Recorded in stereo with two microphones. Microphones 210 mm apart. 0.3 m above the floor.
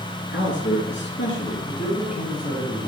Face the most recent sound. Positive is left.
turn(degrees=35)  # may be behind; listen again after turning